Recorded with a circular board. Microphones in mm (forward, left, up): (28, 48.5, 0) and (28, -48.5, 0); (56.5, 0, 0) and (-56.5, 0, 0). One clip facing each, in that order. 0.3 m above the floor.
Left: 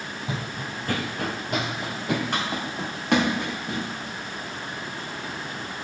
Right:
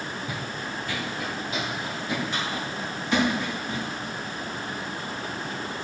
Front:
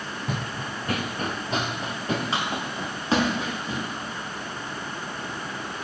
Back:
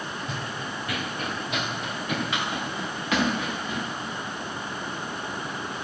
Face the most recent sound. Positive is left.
turn(degrees=65)